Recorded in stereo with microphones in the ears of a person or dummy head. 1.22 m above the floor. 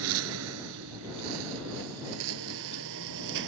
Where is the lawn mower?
75° right (ahead or behind).